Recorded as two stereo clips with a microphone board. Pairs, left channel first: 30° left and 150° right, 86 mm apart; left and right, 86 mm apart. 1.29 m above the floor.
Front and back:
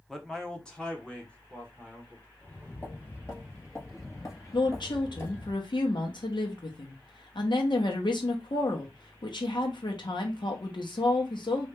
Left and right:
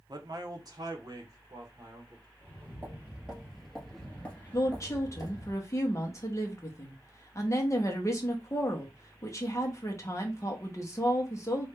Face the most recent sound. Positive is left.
turn(degrees=40)